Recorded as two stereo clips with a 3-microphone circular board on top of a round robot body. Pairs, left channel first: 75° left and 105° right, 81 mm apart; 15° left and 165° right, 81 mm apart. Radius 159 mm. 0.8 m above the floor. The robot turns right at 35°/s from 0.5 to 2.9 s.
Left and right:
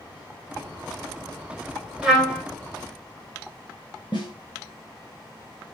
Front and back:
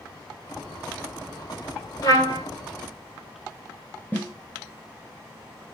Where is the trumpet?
30° right, 2 m; by 2.4 s 15° right, 2 m.